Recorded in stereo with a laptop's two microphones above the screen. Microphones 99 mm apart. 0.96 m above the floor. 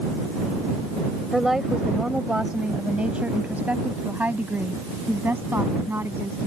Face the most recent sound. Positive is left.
turn(degrees=-25)  # may be behind; listen again after turning